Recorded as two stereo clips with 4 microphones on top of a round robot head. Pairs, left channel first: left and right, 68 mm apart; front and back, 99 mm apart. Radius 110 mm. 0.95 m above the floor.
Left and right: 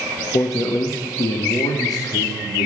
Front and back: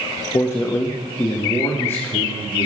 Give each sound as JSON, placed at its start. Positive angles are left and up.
{"t": 0.3, "sound": "a man speaking", "azimuth_deg": 60, "distance_m": 1.4}